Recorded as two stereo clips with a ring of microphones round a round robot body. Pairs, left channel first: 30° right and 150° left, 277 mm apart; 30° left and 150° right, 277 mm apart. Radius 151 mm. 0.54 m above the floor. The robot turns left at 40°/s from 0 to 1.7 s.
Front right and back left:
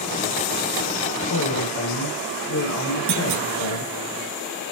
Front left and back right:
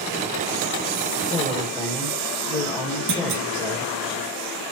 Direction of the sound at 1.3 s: 35° right.